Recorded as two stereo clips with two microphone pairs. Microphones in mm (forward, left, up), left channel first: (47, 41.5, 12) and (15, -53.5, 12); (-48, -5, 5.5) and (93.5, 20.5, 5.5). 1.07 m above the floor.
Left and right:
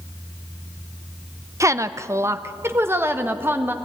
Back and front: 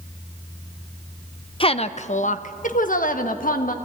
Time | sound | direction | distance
1.6 | a woman speaking | 145° right | 0.5 m